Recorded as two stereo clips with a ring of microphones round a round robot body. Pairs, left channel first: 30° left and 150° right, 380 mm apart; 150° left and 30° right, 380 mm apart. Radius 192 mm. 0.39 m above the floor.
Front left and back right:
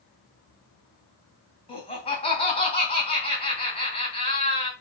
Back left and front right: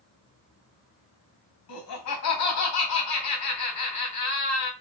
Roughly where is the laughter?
Left.